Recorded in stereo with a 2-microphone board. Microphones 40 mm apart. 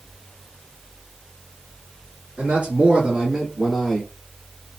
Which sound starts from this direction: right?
A man speaking, at 2.4 s.